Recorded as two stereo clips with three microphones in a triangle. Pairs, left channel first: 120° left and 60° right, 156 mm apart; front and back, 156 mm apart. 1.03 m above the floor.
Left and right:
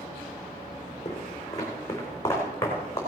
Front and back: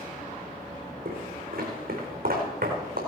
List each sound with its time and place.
1.1 s footsteps: 175° right, 3.5 m; by 3.0 s 170° right, 4.5 m